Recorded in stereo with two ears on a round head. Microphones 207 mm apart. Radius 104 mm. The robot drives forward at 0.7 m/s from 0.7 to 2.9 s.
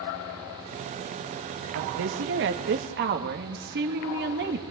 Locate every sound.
1.8 s a woman speaking: 65° right (ahead or behind), 2 m; by 4.6 s 50° right (ahead or behind), 2.5 m